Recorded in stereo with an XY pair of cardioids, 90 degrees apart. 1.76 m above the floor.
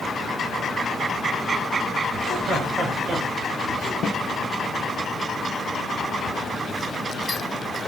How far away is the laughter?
About 3 m.